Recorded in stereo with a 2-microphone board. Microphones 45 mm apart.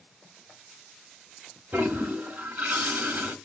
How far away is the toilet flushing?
About 0.7 m.